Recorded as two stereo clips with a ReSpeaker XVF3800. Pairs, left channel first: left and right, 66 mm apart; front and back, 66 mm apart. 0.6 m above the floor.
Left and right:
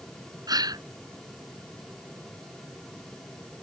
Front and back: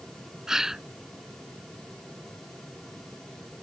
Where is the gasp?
100° right.